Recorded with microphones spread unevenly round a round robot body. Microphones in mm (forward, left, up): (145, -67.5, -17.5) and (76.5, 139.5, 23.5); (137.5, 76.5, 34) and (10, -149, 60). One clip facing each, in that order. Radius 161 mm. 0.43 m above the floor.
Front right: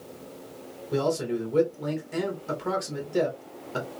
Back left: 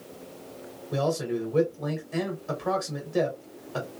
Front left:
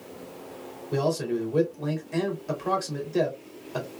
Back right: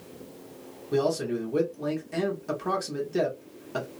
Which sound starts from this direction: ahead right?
A man speaking, at 0.9 s.